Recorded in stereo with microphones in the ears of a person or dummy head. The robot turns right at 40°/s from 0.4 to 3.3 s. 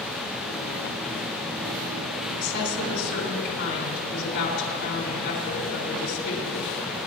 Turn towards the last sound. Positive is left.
turn(degrees=125)